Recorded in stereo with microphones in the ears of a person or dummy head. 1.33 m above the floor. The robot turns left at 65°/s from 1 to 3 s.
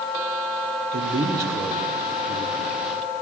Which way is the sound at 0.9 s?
130° right.